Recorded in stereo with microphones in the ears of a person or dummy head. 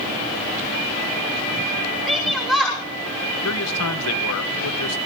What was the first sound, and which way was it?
A shout, 5° right (ahead or behind).